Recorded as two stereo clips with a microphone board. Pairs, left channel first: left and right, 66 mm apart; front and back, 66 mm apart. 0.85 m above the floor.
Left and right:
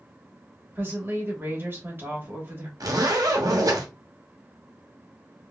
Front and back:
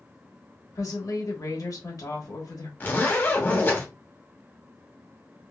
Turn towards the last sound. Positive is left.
turn(degrees=-60)